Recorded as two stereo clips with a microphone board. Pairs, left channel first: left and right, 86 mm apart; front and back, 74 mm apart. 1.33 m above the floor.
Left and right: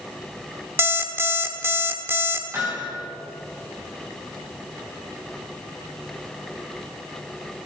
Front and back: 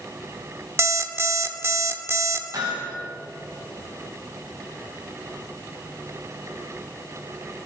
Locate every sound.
0.8 s an alarm clock: 140° right, 1.3 m
2.5 s hammering: 155° right, 5.5 m